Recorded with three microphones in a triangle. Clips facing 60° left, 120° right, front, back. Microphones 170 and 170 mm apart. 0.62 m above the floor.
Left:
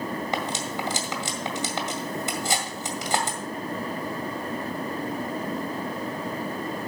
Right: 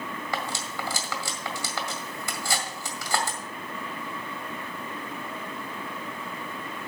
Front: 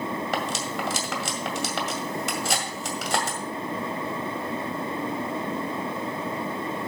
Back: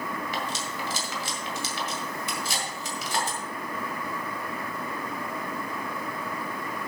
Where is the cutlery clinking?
10° right, 1.8 m.